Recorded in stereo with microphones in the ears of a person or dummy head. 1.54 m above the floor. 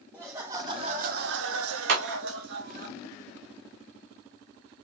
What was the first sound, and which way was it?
Laughter, centre (ahead or behind).